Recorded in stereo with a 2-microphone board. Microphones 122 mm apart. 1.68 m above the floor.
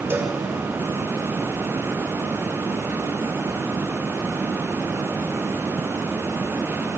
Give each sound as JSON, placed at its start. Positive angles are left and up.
{"t": 0.1, "sound": "a cowbell", "side_deg": -20, "distance_m": 3.0}